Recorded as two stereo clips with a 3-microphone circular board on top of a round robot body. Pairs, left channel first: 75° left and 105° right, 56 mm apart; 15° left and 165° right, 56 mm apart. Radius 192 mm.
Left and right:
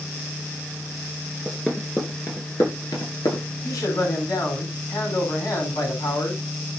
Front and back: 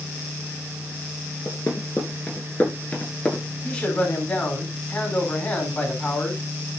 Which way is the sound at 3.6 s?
85° left.